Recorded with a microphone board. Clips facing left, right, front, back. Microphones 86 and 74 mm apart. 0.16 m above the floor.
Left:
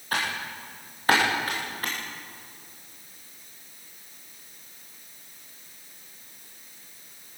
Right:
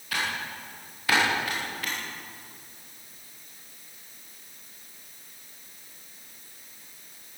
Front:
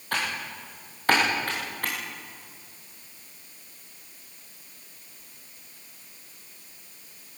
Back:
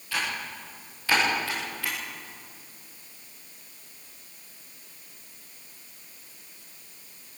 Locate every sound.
0.1 s typing on a keyboard: 40° left, 9 m